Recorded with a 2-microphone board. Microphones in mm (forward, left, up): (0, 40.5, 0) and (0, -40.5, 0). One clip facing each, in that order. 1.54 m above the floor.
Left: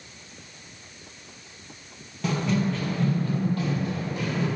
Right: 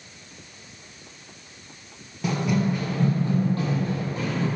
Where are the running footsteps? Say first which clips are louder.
Right 1 dB; 5° right (ahead or behind), 1.6 m; by 4.5 s 35° right (ahead or behind), 3 m.